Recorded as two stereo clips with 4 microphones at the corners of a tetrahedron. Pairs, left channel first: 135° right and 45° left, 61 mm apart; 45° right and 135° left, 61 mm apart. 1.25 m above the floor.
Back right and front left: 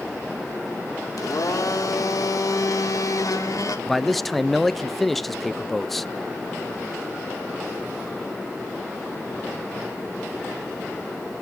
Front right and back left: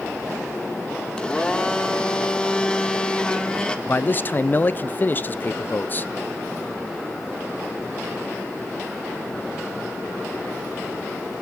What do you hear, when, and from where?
1.2 s a blender: 120° right, 1.8 m
3.9 s a man speaking: 50° right, 0.5 m